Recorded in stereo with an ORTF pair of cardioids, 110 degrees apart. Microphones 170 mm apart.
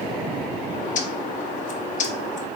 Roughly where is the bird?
Ahead left.